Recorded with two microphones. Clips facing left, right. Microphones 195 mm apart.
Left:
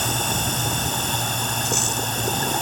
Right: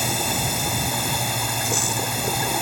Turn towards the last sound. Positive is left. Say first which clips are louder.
# even
turn(degrees=-10)  # may be behind; listen again after turning